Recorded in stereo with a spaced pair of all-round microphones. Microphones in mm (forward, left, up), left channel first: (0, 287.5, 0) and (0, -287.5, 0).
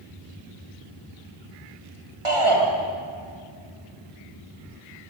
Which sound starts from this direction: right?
A shout, at 2.2 s.